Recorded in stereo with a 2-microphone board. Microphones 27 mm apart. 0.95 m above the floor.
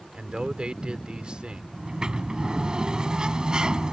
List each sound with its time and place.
0.1 s a man speaking: 35° right (ahead or behind)
1.7 s a sliding door: 30° right (ahead or behind)